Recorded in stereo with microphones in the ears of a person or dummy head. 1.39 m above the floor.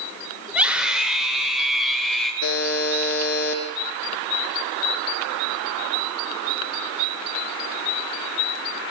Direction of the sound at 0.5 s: 10° right (ahead or behind).